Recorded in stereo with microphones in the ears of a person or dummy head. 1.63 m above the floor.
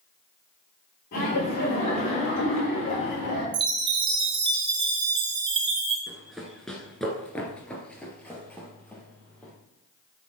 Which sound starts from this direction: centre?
Running footsteps, at 6.1 s.